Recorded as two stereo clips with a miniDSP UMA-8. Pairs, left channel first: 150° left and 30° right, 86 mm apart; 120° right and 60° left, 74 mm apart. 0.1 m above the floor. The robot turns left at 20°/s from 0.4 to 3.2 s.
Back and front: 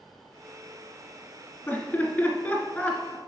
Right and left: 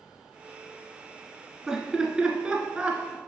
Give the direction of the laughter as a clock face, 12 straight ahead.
8 o'clock.